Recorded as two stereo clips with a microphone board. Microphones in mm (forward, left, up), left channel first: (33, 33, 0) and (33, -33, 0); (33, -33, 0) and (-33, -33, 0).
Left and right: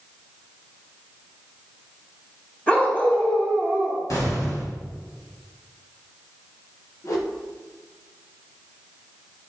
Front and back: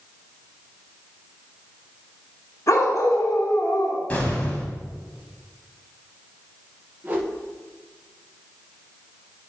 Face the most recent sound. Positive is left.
turn(degrees=120)